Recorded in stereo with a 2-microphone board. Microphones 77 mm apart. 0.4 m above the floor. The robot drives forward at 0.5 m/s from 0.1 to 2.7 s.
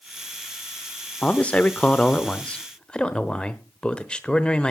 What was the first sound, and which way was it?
A man speaking, 20° left (ahead or behind).